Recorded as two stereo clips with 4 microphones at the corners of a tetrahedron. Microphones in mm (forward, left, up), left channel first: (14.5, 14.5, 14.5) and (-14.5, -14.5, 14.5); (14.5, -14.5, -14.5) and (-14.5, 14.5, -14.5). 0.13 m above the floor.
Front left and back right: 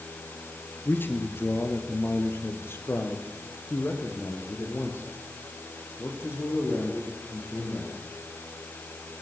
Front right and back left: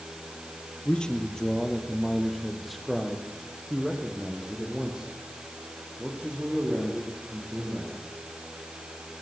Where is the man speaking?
20° left, 2.5 m; by 7.9 s 70° left, 7.5 m.